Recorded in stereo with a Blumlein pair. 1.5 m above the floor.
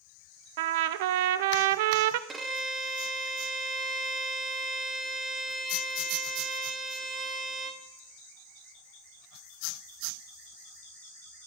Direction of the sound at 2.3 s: 20° right.